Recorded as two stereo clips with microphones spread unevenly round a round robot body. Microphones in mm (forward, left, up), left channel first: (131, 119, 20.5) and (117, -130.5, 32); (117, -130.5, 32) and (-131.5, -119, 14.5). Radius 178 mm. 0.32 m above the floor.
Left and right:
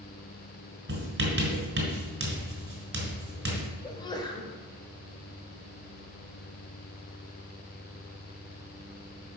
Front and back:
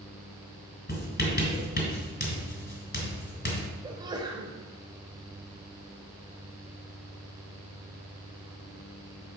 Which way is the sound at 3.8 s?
130° left.